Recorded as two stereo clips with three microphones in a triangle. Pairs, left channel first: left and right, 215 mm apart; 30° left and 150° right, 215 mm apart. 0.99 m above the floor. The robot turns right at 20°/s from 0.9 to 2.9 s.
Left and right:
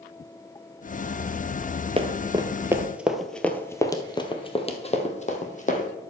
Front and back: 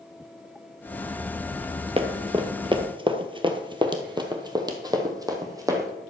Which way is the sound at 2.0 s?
120° right.